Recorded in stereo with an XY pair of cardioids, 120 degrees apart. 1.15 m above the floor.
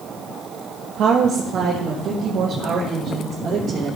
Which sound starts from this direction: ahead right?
A woman speaking, at 1.0 s.